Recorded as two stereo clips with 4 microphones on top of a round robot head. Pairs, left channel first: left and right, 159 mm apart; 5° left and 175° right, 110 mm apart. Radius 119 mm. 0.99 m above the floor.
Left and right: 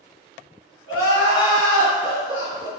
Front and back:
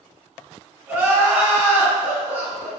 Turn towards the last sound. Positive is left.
turn(degrees=120)